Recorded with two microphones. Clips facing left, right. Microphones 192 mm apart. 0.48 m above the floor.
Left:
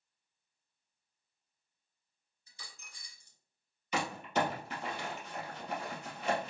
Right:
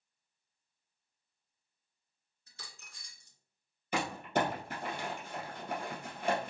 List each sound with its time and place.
2.5 s a dropped coin: 70° right (ahead or behind), 0.8 m
3.9 s crumpling: 50° right (ahead or behind), 2 m